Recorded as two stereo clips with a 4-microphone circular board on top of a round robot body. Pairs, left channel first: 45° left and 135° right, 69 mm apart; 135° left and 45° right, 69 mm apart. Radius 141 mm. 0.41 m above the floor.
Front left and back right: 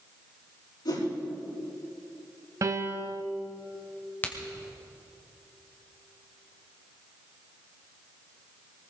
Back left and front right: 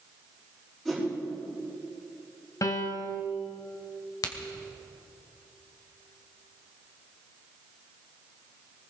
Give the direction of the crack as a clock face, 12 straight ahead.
8 o'clock.